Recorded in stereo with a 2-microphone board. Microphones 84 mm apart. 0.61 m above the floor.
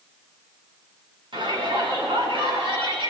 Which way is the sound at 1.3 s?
80° right.